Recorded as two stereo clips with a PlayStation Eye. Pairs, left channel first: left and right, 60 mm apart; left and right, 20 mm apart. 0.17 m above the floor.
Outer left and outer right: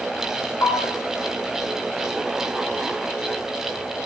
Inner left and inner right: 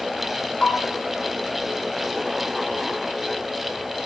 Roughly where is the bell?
Left.